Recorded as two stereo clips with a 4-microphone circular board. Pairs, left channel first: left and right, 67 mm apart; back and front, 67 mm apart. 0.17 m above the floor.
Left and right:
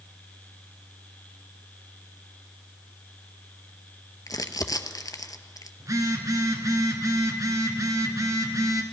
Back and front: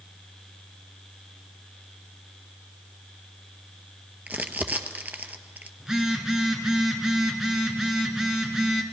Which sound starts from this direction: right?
A phone buzzing, at 5.8 s.